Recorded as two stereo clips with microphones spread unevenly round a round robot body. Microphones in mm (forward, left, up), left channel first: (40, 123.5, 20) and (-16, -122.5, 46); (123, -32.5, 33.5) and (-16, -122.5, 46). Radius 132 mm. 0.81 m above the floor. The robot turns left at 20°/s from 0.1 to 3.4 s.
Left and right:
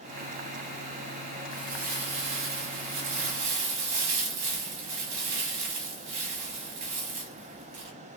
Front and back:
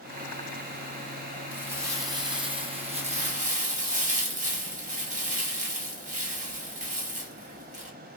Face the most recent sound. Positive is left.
turn(degrees=-105)